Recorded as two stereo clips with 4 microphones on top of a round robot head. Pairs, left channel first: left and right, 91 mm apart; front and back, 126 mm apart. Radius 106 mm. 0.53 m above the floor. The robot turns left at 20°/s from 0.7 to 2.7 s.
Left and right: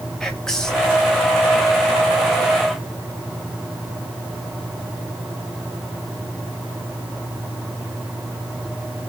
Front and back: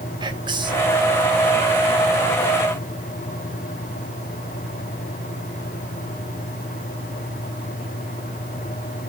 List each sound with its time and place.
0.2 s whispering: 170° left, 1.3 m; by 0.9 s 165° left, 1.3 m